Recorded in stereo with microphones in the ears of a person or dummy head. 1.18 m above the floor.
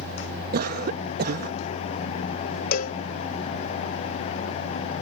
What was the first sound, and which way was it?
A cough, 55° right (ahead or behind).